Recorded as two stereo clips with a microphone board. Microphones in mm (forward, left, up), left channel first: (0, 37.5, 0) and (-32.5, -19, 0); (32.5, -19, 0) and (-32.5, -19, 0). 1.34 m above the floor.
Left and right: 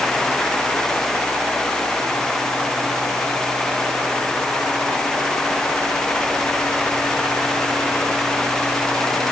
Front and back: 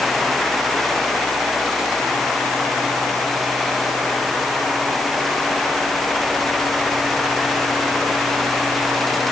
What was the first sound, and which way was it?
Only background noise.